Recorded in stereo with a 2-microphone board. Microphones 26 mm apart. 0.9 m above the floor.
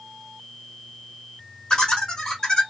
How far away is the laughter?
About 1.8 m.